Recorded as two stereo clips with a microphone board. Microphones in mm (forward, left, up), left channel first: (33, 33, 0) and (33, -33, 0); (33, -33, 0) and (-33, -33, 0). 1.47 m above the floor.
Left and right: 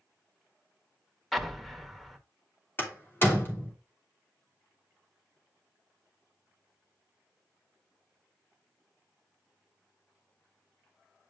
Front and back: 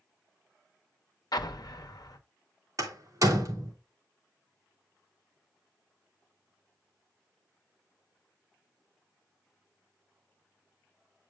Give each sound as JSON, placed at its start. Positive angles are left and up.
{"t": 1.3, "sound": "an explosion", "azimuth_deg": 5, "distance_m": 0.9}
{"t": 2.8, "sound": "a door slam", "azimuth_deg": 145, "distance_m": 2.5}